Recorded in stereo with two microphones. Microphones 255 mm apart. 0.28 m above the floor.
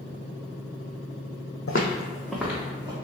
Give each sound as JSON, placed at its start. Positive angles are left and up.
{"t": 1.7, "sound": "footsteps", "side_deg": 65, "distance_m": 0.7}